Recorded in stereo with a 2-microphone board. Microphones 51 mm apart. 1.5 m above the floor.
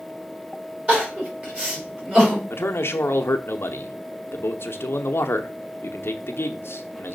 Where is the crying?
25° right (ahead or behind), 4 m.